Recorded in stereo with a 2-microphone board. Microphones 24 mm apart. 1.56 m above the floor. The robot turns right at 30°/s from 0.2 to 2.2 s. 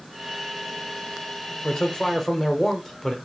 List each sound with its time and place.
1.6 s a man speaking: 35° left (ahead or behind), 0.7 m; by 3.1 s 15° left (ahead or behind), 0.7 m